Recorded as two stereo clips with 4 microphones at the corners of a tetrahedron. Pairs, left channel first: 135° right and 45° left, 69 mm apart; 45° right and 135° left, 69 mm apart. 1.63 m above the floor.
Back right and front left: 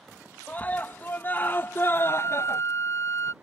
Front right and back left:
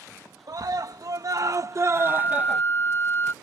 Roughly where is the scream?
Behind.